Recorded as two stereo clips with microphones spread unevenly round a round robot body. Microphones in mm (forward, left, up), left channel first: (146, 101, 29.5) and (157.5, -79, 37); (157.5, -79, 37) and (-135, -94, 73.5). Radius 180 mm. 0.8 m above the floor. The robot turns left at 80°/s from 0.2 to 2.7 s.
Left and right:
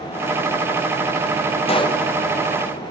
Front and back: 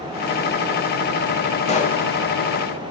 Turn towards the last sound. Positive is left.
turn(degrees=-25)